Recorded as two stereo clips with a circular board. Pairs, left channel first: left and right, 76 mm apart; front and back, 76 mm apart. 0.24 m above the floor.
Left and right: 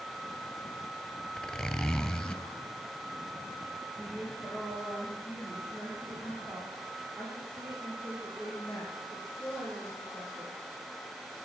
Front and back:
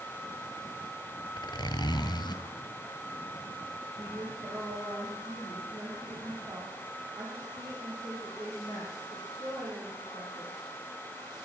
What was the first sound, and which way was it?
A zipper, 5° left.